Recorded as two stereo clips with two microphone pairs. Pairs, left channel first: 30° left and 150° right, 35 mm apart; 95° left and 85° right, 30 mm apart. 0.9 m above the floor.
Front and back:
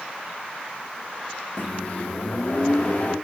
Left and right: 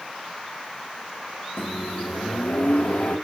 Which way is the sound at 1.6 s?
85° left.